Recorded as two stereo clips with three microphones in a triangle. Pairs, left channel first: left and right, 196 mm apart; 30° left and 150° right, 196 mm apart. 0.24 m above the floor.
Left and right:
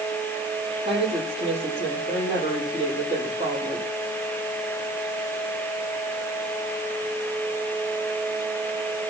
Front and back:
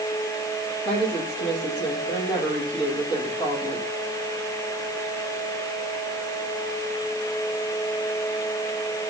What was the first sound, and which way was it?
A woman speaking, 30° right.